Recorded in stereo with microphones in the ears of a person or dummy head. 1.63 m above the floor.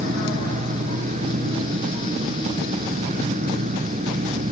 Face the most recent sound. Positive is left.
turn(degrees=-45)  # may be behind; listen again after turning